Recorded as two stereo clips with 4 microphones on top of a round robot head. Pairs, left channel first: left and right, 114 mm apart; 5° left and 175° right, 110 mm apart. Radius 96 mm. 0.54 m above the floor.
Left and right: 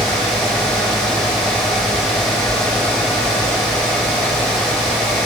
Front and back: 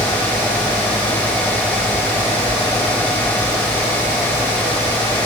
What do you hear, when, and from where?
Only background noise.